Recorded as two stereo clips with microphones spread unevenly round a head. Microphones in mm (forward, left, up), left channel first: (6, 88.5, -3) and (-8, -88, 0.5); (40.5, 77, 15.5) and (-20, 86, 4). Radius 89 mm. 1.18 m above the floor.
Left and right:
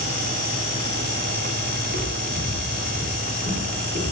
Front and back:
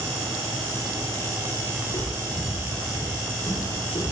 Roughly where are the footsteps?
Ahead right.